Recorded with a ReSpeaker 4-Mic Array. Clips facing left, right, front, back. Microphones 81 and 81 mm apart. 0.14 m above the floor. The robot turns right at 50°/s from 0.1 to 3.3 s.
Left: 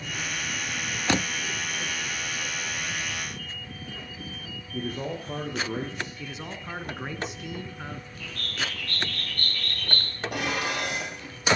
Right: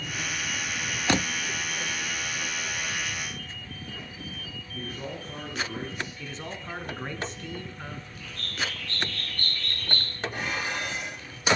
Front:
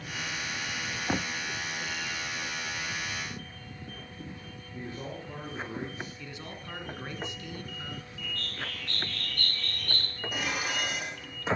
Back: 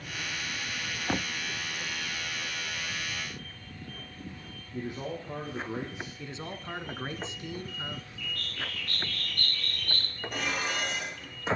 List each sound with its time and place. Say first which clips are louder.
4.7 s a man speaking: left 5 dB, back 4 dB; 110° left, 4.5 m
6.2 s a man speaking: even, back 3 dB; 160° left, 1.5 m
8.2 s a bird: even, front 1 dB; 60° left, 5.5 m
10.3 s dishes clattering: left 4 dB, back 1 dB; 85° left, 3.5 m